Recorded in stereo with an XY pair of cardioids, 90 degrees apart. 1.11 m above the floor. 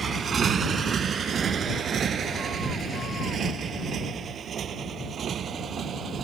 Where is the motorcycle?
50° right; by 6.2 s 60° right.